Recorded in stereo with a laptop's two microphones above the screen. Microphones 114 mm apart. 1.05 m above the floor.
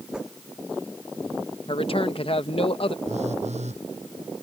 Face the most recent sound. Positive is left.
turn(degrees=-85)